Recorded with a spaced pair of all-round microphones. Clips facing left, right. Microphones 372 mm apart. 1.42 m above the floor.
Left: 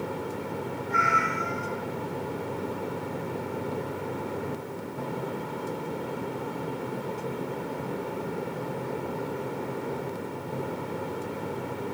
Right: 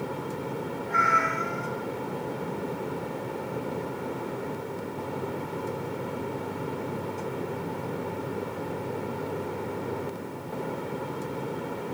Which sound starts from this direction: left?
A cat meowing, at 0.9 s.